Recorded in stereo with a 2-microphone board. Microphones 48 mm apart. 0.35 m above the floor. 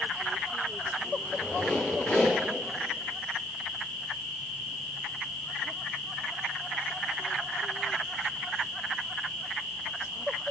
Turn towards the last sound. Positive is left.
turn(degrees=35)  # may be behind; listen again after turning